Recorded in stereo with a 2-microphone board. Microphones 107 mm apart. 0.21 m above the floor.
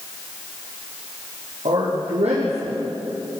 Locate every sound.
1.6 s a man speaking: 80° right, 7 m